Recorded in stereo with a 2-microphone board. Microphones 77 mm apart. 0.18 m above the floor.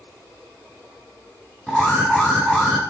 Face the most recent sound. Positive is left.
turn(degrees=5)  # may be behind; listen again after turning